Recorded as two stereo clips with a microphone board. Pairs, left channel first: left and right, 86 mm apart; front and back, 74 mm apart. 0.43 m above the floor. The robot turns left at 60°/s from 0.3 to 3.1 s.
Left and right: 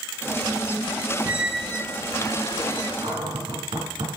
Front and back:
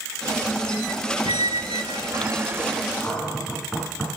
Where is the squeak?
165° right, 0.6 m; by 3.0 s 95° left, 0.6 m.